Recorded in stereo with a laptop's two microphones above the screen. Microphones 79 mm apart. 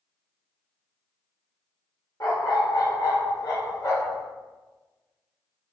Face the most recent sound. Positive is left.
turn(degrees=40)  # may be behind; listen again after turning